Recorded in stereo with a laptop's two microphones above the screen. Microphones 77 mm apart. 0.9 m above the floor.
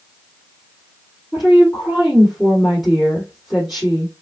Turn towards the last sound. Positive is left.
turn(degrees=-5)  # may be behind; listen again after turning